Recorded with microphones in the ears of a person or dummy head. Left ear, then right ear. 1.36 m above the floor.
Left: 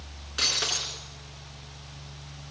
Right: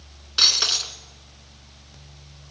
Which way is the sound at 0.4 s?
40° right (ahead or behind).